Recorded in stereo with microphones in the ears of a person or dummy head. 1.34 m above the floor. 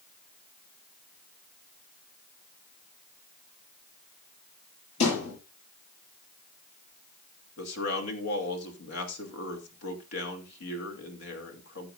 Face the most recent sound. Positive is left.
turn(degrees=80)